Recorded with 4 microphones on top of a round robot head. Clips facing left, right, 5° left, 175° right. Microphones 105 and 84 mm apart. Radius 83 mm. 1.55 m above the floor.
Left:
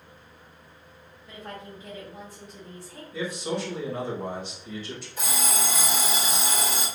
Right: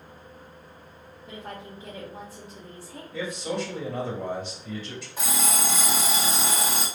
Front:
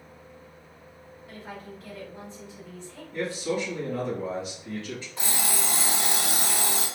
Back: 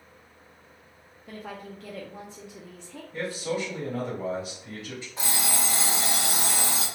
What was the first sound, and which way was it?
A woman speaking, 155° right.